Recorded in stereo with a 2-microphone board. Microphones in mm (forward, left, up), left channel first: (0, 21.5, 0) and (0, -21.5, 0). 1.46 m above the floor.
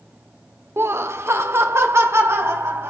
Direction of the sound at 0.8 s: 60° right (ahead or behind).